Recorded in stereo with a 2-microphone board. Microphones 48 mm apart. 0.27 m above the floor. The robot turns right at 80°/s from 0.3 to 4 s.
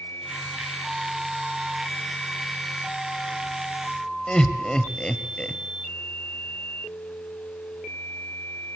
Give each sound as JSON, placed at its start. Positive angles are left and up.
{"t": 4.3, "sound": "laughter", "side_deg": 20, "distance_m": 0.9}